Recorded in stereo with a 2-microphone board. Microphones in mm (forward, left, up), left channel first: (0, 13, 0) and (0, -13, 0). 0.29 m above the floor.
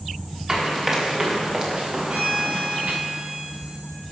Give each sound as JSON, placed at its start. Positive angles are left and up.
{"t": 0.5, "sound": "running footsteps", "side_deg": -25, "distance_m": 5.5}
{"t": 2.1, "sound": "a violin", "side_deg": -45, "distance_m": 3.5}